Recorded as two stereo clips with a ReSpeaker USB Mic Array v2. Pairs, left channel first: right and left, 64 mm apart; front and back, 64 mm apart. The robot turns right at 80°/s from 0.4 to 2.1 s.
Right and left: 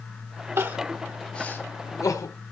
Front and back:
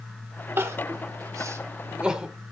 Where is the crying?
130° left, 1.5 m; by 2.3 s 105° right, 1.5 m.